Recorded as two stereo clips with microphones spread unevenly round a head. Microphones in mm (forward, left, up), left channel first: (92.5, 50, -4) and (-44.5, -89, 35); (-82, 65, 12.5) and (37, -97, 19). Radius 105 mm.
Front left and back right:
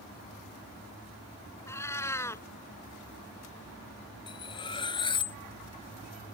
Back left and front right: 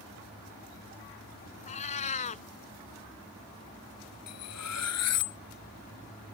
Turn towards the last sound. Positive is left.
turn(degrees=115)